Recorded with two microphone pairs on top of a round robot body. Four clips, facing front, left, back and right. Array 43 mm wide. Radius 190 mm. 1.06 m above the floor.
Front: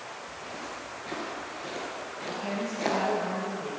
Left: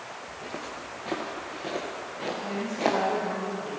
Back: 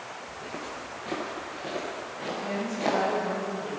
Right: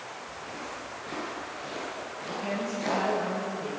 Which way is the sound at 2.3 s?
45° right.